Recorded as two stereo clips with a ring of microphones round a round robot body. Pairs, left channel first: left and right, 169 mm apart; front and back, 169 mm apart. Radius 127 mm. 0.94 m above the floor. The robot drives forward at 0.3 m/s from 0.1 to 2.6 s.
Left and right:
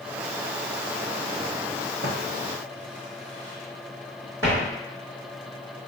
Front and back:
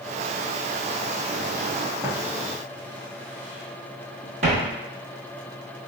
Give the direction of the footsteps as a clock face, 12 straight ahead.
4 o'clock.